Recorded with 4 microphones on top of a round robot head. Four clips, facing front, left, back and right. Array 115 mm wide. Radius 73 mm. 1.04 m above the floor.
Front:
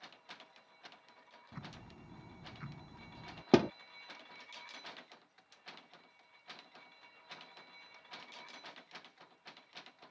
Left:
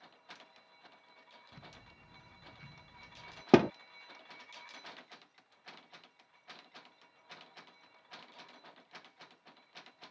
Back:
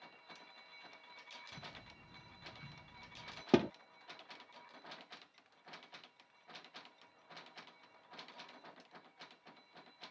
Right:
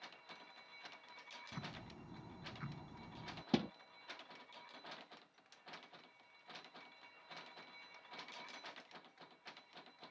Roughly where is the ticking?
Ahead right.